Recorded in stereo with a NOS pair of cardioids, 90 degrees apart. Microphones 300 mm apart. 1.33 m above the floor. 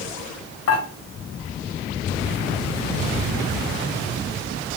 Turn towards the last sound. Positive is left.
turn(degrees=55)